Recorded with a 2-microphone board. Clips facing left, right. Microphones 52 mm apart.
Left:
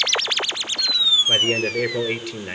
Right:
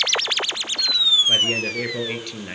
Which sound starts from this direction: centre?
A man speaking, at 1.3 s.